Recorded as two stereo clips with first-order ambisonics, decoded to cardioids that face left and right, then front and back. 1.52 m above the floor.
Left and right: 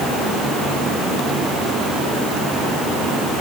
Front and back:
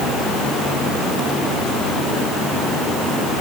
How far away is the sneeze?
No sneeze in this recording.